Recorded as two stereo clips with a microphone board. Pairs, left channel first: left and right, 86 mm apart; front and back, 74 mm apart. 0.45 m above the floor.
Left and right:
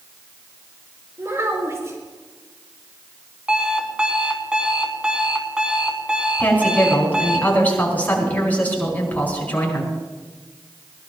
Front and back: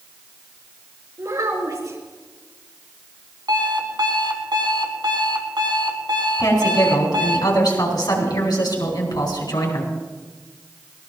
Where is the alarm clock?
170° right, 1.6 m.